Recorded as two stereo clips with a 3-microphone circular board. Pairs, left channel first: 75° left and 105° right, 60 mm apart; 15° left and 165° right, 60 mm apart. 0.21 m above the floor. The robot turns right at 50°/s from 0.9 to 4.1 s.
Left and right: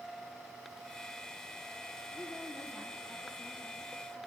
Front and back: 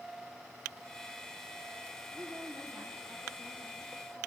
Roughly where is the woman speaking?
Behind left.